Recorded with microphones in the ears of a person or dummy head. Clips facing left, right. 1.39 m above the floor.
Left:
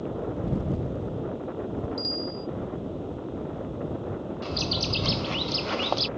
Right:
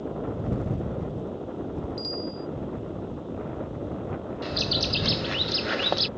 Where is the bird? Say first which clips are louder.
Right 2 dB; 15° right (ahead or behind).